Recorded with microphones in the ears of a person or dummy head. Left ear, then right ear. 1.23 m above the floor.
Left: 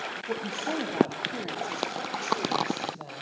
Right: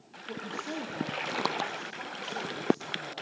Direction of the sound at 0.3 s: 45° left (ahead or behind).